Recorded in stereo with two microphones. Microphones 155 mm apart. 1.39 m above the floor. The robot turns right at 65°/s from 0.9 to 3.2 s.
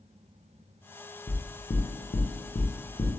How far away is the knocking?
About 0.7 m.